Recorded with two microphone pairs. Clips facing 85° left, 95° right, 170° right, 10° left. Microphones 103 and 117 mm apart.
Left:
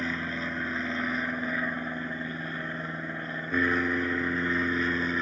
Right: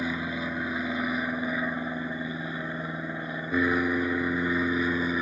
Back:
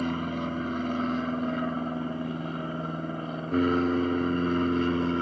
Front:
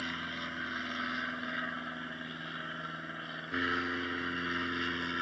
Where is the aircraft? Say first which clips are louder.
Right 2 dB, back 12 dB; 170° right.